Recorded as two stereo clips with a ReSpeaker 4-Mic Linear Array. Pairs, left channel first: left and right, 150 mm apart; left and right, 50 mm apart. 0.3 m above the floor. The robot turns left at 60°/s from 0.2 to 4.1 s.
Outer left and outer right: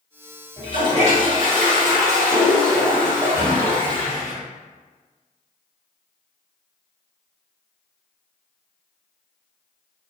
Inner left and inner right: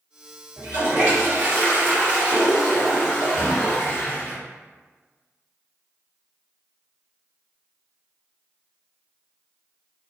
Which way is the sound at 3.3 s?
20° left (ahead or behind).